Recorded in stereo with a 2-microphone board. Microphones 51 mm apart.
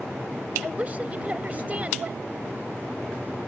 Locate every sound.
0.6 s a woman speaking: 30° right (ahead or behind)